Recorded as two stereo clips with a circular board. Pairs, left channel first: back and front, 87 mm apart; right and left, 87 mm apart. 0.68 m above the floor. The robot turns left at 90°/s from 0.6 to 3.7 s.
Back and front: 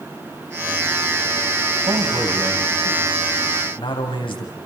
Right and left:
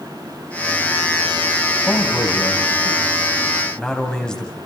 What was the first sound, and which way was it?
A man speaking, 5° right.